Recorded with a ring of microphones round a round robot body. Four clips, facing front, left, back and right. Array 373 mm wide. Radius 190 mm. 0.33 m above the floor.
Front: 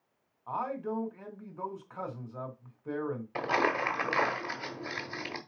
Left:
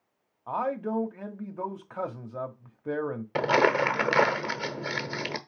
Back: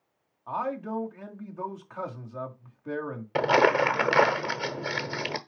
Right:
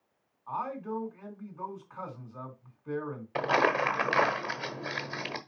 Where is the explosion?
No explosion in this recording.